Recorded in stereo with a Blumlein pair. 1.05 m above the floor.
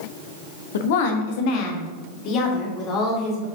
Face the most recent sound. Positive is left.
turn(degrees=30)